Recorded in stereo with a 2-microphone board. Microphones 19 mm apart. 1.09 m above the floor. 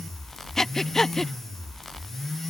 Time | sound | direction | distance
0.6 | breathing | 30° left (ahead or behind) | ?